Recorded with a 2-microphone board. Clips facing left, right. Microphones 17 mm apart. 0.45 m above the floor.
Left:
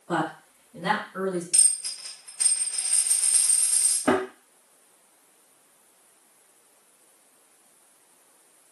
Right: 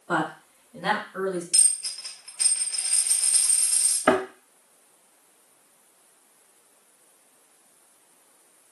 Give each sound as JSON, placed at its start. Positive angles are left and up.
{"t": 0.1, "sound": "a woman speaking", "side_deg": -55, "distance_m": 1.1}
{"t": 1.5, "sound": "a dropped coin", "side_deg": -30, "distance_m": 1.1}
{"t": 4.1, "sound": "a thud", "side_deg": -80, "distance_m": 0.9}